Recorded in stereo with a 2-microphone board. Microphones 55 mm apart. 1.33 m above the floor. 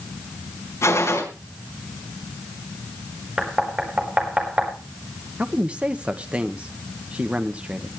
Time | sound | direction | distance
0.8 | a gunshot | 65° left (ahead or behind) | 4.5 m
3.4 | knocking | 20° right (ahead or behind) | 4.5 m
5.4 | a man speaking | 25° right (ahead or behind) | 1.5 m